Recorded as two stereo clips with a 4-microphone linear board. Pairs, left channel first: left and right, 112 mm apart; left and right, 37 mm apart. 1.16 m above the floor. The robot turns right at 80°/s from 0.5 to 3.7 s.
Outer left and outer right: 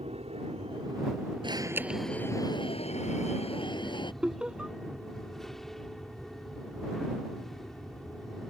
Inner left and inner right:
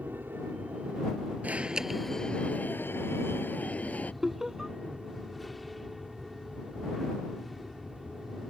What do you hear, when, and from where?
0.0 s an aircraft: 80° right; by 8.5 s 175° left
1.4 s an alarm: 45° right; by 4.1 s 135° left
4.2 s laughter: 10° right (ahead or behind)